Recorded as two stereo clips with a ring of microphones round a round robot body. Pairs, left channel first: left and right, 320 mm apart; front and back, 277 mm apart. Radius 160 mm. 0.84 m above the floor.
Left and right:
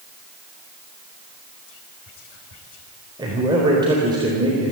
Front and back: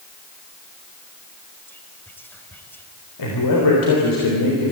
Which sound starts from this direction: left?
Whispering, at 1.7 s.